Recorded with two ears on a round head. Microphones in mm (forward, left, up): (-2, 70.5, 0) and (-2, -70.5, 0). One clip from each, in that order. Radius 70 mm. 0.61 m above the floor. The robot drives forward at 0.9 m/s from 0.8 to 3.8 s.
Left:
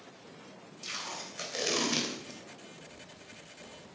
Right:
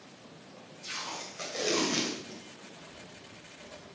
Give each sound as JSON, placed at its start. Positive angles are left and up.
{"t": 0.8, "sound": "tape being pulled", "side_deg": 55, "distance_m": 3.5}
{"t": 2.8, "sound": "writing", "side_deg": -30, "distance_m": 3.0}